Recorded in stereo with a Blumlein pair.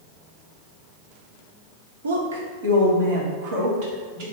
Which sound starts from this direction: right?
A woman speaking, at 2.0 s.